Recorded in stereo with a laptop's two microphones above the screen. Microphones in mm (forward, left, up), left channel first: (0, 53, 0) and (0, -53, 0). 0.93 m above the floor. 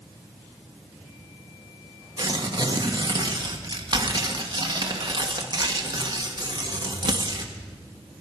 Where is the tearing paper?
40° right (ahead or behind), 1.6 m.